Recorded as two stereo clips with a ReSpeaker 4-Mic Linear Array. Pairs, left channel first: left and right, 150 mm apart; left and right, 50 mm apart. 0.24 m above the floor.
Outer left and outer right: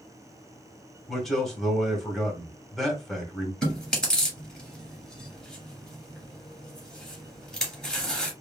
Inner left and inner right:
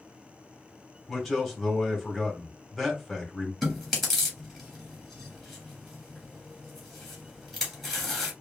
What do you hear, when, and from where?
1.1 s a man speaking: centre (ahead or behind), 1.6 m
3.6 s chewing: 5° left (ahead or behind), 2.5 m